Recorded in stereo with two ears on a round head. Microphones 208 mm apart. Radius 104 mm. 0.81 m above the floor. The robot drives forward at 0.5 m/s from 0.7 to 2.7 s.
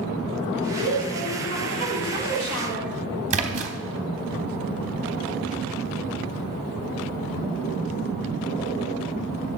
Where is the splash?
30° right (ahead or behind), 0.8 m.